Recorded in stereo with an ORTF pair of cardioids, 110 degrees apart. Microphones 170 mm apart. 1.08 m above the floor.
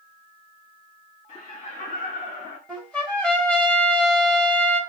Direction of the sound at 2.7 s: 5° left.